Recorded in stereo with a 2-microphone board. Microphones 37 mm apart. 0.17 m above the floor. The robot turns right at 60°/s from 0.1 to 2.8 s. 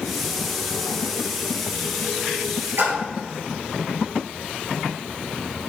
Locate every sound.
2.8 s a splash: 70° right (ahead or behind), 1.3 m